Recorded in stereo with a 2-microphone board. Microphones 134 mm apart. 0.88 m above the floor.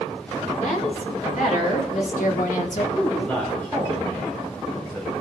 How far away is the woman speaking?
About 3.5 m.